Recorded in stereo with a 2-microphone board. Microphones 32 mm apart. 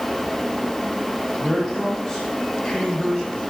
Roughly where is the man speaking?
Centre.